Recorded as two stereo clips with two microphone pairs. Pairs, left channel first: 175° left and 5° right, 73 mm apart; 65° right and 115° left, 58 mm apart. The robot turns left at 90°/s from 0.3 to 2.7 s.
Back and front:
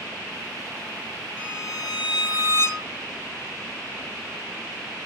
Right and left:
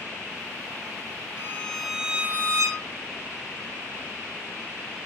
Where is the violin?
115° right, 1.3 m; by 2.9 s 125° left, 1.3 m.